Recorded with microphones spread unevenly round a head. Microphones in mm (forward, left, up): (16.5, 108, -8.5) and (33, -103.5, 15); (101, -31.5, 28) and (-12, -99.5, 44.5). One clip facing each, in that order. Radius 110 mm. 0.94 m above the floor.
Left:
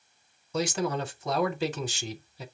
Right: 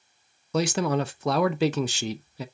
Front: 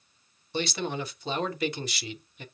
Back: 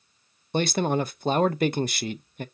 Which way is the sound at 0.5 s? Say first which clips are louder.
Right 4 dB, back 7 dB; 110° right.